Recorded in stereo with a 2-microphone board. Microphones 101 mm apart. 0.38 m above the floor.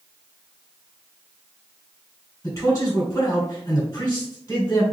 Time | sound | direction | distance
2.4 | a man speaking | 30° left (ahead or behind) | 1.9 m